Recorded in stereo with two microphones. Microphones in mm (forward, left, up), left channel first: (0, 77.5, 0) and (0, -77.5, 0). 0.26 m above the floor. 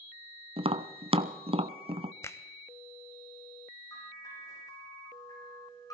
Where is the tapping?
40° right (ahead or behind), 0.6 m.